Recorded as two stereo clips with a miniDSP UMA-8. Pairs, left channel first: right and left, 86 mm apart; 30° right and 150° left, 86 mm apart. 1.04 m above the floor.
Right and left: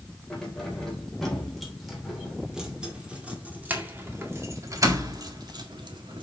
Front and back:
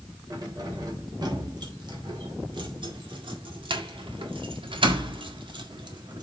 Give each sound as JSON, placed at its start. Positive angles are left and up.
{"t": 0.3, "sound": "keys jangling", "azimuth_deg": -170, "distance_m": 3.5}